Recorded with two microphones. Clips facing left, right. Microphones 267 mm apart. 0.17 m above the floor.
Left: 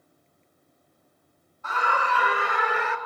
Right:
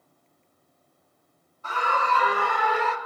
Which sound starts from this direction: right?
A scream, at 1.6 s.